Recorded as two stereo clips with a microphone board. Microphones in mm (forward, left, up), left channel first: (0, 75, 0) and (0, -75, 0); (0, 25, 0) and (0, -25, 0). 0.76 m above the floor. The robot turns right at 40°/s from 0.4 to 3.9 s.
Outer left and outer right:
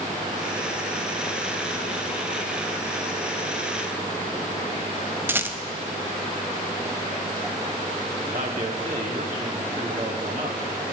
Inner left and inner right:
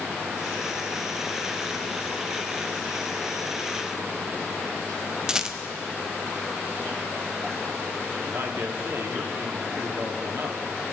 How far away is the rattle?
About 0.6 m.